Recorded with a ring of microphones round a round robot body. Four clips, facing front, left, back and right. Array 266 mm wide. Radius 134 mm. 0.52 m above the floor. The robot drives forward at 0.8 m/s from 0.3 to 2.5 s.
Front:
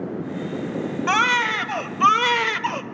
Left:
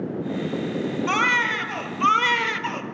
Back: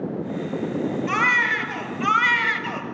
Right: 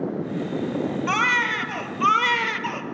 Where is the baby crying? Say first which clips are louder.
Left 2 dB, front 5 dB; straight ahead, 2.5 m.